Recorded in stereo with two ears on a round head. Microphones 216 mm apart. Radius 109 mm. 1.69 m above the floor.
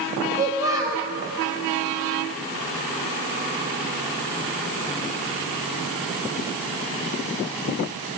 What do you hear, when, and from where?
0.4 s a child speaking: 15° right (ahead or behind), 0.6 m